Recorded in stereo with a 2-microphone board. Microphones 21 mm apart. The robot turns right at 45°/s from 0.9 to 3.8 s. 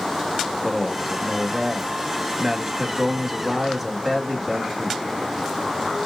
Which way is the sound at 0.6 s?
10° right (ahead or behind).